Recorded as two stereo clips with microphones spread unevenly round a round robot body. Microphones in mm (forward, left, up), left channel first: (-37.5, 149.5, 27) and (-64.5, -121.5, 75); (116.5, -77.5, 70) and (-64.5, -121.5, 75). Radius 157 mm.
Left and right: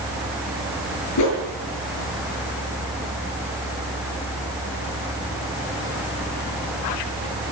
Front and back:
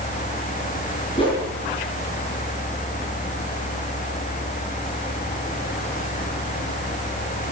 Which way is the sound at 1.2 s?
85° left.